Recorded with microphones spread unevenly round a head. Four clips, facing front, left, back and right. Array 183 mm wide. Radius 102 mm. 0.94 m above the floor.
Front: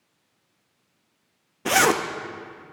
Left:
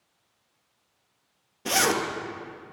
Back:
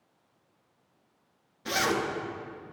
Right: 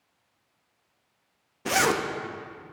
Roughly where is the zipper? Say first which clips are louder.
Right 1 dB, front 8 dB; ahead.